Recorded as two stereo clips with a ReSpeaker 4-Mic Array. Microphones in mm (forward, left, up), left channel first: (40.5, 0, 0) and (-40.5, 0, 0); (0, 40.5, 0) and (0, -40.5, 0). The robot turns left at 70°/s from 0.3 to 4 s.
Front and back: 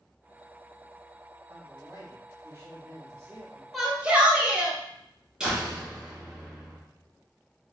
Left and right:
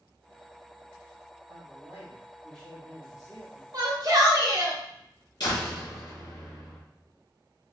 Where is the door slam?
100° left, 1.4 m.